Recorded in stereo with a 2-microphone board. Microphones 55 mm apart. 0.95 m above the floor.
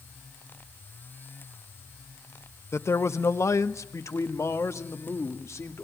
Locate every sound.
2.7 s a man speaking: 55° left (ahead or behind), 0.9 m; by 5.8 s 60° left (ahead or behind), 2 m